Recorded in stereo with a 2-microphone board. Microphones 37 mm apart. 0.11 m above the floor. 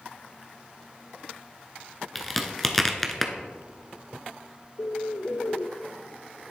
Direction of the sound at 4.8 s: 80° left.